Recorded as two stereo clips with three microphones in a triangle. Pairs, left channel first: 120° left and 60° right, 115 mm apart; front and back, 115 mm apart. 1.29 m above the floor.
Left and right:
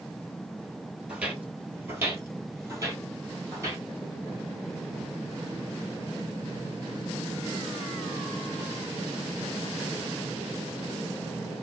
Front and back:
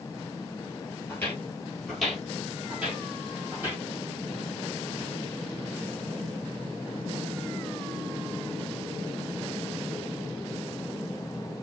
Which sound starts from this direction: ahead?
Footsteps, at 1.1 s.